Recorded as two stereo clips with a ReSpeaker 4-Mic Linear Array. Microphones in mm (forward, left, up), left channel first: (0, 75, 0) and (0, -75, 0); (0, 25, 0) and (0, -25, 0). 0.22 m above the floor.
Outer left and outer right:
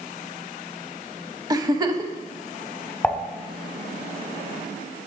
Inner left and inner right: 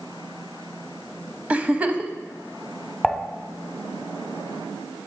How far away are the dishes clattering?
About 0.9 m.